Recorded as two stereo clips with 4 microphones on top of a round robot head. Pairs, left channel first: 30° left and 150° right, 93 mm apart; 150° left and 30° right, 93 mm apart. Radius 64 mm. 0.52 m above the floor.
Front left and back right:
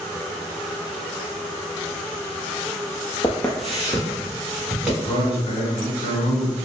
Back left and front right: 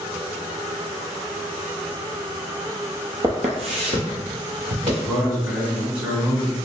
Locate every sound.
3.2 s footsteps: straight ahead, 0.6 m; by 4.9 s 80° right, 2.5 m
5.0 s a man speaking: 45° left, 1.5 m